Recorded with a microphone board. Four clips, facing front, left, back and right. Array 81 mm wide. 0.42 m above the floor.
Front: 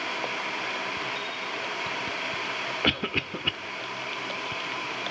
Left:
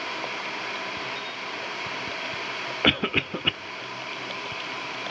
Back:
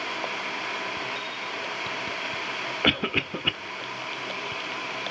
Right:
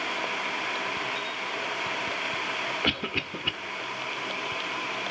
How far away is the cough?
About 0.9 m.